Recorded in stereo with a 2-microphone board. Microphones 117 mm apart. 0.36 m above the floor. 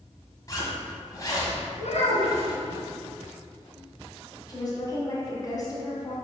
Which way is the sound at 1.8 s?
75° left (ahead or behind).